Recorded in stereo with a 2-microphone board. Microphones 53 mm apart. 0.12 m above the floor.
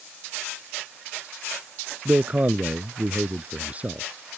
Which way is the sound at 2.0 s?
30° right (ahead or behind).